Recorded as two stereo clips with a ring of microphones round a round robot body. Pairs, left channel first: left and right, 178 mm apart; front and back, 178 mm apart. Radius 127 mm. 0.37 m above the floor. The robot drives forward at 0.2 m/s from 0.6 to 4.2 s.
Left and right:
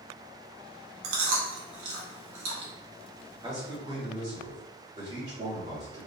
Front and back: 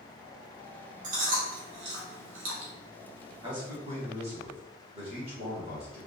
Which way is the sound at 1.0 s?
115° right.